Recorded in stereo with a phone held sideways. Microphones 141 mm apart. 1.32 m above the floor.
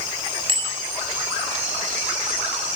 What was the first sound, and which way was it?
A bicycle bell, 40° right (ahead or behind).